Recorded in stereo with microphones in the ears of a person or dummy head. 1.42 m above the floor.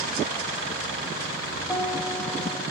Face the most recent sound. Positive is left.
turn(degrees=15)  # may be behind; listen again after turning